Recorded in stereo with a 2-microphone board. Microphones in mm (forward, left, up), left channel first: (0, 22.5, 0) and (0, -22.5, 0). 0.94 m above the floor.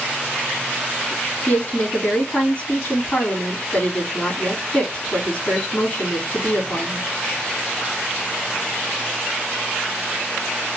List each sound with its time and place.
1.5 s a woman speaking: 35° left (ahead or behind), 2.5 m